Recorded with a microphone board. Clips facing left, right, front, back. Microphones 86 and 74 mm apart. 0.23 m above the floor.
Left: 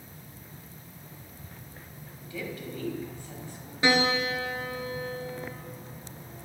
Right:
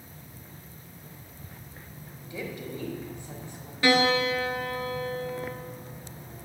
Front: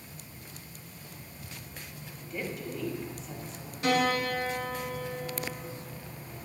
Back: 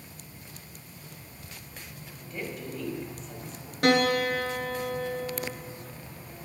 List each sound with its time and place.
2.3 s a woman speaking: 90° right, 1.0 m
3.8 s a piano: 160° left, 0.9 m